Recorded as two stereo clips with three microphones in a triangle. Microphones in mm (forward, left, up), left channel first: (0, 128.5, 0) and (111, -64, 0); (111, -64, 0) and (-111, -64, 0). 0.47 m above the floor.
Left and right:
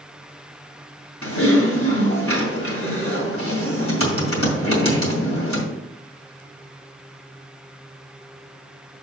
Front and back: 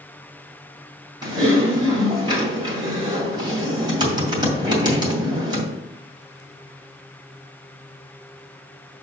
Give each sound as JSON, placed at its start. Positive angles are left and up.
{"t": 1.2, "sound": "typing on a keyboard", "azimuth_deg": 110, "distance_m": 2.0}